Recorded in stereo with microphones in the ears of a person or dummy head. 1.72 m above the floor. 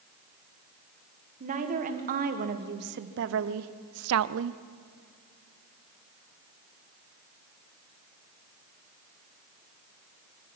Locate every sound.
1.4 s a woman speaking: 40° right (ahead or behind), 1.9 m; by 4.6 s 65° right (ahead or behind), 0.6 m